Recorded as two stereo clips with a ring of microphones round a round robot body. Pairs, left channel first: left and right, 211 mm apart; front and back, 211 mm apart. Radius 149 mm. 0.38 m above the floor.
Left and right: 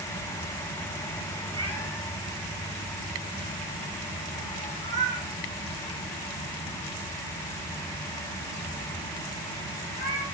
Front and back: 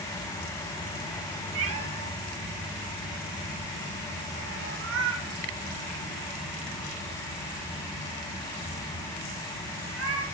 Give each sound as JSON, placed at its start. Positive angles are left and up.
{"t": 1.6, "sound": "a cat meowing", "azimuth_deg": 175, "distance_m": 1.5}